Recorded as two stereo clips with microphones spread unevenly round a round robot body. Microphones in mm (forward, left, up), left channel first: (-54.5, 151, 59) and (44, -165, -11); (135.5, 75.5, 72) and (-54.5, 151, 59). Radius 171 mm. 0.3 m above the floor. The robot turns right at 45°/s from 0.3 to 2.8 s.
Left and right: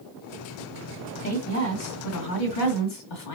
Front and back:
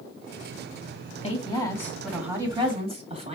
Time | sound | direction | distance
1.2 | a woman speaking | 35° left | 2.5 m